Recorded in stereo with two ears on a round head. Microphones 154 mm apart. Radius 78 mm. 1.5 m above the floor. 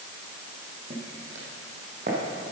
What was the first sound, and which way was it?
Footsteps, 45° right (ahead or behind).